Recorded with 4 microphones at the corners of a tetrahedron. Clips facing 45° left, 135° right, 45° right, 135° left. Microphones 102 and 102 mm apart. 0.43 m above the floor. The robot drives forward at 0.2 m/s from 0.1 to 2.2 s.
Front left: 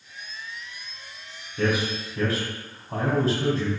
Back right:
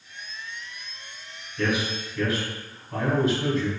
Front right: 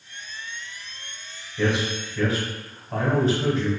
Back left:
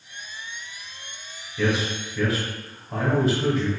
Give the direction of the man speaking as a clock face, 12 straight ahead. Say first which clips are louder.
Front left 2 dB, even; 10 o'clock.